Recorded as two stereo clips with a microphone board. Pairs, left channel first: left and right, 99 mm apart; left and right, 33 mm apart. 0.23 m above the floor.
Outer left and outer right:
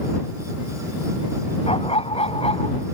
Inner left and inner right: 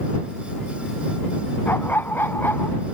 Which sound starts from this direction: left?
A dog barking, at 1.7 s.